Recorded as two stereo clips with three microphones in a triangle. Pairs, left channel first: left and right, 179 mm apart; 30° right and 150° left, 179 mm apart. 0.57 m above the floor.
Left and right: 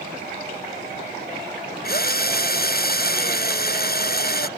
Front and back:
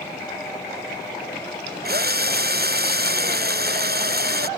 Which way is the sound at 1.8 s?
120° left.